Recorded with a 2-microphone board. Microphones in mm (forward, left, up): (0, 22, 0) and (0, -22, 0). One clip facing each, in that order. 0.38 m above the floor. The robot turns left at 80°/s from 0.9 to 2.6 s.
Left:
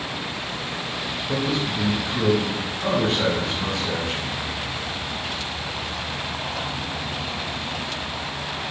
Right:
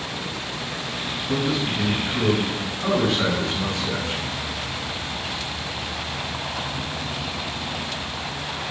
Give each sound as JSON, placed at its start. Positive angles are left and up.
{"t": 1.3, "sound": "a man speaking", "azimuth_deg": -150, "distance_m": 1.9}